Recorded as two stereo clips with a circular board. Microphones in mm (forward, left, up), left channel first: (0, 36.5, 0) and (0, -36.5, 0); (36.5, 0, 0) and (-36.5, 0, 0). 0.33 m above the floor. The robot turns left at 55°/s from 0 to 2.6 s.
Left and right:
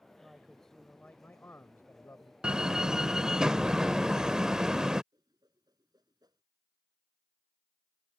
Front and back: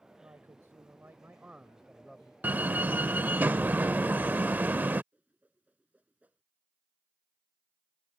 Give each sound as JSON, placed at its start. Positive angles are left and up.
{"t": 0.2, "sound": "a man speaking", "azimuth_deg": -165}
{"t": 2.4, "sound": "a door slam", "azimuth_deg": -155}
{"t": 5.1, "sound": "a whoosh", "azimuth_deg": -110}